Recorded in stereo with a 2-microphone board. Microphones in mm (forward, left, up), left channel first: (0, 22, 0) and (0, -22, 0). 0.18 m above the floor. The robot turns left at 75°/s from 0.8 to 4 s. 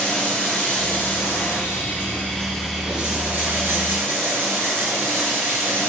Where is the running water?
140° left, 3 m; by 5.9 s 100° right, 3 m.